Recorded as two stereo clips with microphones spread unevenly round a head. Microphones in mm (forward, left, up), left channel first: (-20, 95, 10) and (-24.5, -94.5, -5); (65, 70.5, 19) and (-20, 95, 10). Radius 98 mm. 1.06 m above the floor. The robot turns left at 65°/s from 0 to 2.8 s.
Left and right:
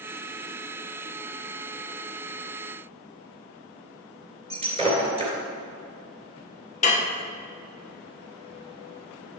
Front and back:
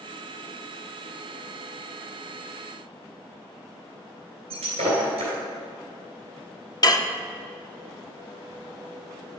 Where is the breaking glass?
150° right, 2.5 m.